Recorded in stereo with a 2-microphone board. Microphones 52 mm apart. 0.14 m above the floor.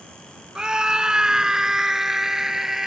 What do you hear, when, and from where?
0.6 s a scream: 15° right (ahead or behind); by 2.9 s 5° right (ahead or behind)